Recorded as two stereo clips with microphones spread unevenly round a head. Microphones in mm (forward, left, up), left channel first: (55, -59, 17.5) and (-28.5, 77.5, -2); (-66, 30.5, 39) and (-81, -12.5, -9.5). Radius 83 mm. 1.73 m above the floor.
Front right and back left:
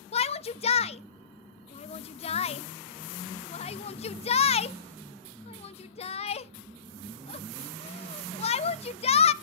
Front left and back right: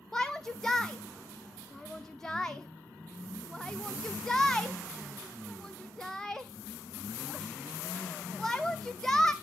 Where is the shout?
5° right, 0.6 m.